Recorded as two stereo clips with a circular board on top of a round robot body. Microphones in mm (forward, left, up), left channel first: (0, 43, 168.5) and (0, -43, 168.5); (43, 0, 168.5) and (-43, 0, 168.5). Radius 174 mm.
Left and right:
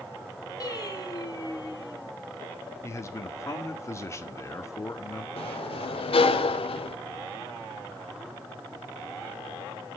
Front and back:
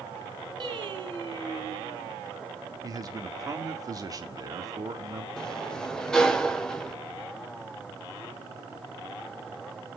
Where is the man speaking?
140° left, 1.9 m.